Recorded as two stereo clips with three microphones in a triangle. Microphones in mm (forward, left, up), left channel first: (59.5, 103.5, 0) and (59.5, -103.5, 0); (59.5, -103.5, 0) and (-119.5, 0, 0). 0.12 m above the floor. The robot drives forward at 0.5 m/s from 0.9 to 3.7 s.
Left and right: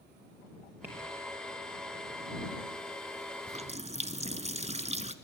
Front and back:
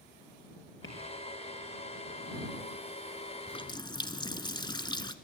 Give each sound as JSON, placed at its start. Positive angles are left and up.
{"t": 0.8, "sound": "tapping", "azimuth_deg": -10, "distance_m": 5.0}
{"t": 3.5, "sound": "a running tap", "azimuth_deg": -65, "distance_m": 0.8}